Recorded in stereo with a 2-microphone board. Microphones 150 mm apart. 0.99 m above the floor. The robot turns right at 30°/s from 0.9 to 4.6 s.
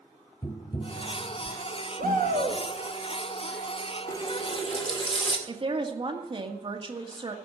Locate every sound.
0.4 s tapping: 25° left (ahead or behind), 0.7 m; by 1.6 s 45° left (ahead or behind), 0.7 m
2.0 s a shout: 70° right (ahead or behind), 2 m; by 2.6 s 60° right (ahead or behind), 2 m
4.1 s a running tap: 20° left (ahead or behind), 1.7 m; by 5.4 s 35° left (ahead or behind), 1.7 m
5.5 s a woman speaking: 35° right (ahead or behind), 1.8 m